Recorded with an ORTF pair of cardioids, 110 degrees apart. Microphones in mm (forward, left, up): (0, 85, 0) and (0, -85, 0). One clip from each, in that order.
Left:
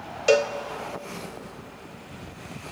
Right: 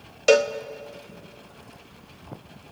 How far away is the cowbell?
About 0.7 m.